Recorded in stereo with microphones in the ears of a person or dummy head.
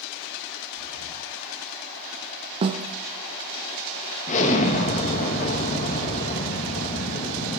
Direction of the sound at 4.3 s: 40° left (ahead or behind).